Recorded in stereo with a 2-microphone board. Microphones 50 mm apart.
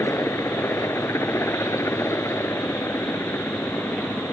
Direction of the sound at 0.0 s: 65° left (ahead or behind).